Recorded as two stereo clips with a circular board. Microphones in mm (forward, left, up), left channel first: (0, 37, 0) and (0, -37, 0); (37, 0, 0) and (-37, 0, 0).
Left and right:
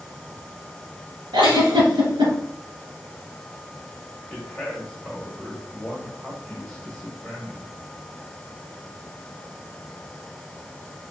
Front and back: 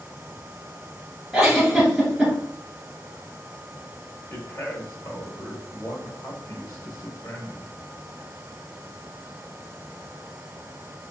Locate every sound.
1.3 s a giggle: 95° right, 2.0 m
4.3 s a man speaking: 15° left, 1.6 m